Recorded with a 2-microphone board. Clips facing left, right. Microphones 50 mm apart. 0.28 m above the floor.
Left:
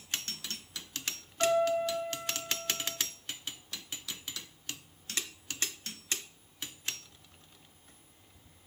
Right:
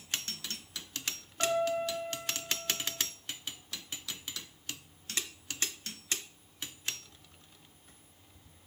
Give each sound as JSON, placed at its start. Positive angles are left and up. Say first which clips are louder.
{"t": 1.4, "sound": "a piano", "louder": "left 3 dB", "side_deg": -30, "distance_m": 5.0}